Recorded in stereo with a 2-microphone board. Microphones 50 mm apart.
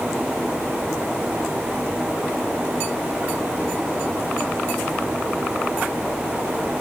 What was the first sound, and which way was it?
Only background noise.